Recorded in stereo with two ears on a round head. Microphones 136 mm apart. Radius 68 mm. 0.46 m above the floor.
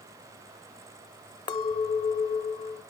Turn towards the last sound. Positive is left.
turn(degrees=30)  # may be behind; listen again after turning